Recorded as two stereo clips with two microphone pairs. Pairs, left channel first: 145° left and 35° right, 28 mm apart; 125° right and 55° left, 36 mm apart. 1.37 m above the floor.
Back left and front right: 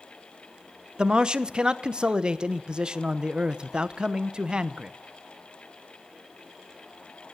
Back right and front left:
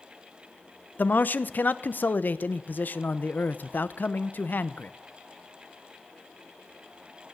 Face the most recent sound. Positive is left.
turn(degrees=-95)